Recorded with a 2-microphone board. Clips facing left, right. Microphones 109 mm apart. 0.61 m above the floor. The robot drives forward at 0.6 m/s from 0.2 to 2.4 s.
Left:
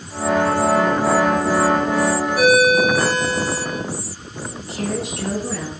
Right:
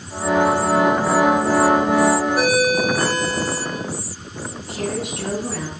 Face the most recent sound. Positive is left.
turn(degrees=-55)  # may be behind; listen again after turning